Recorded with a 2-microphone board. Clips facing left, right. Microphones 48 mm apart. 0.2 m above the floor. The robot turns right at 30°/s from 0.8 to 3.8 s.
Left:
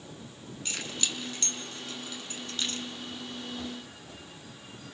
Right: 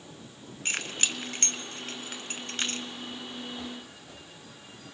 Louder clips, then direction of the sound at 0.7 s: Right 4 dB; 45° right (ahead or behind).